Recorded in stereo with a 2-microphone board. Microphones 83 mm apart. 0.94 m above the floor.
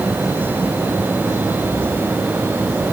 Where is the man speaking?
I don't hear a man speaking.